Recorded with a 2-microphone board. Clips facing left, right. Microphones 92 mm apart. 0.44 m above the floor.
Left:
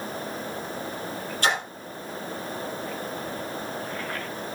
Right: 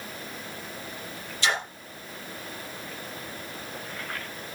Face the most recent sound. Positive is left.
turn(degrees=50)  # may be behind; listen again after turning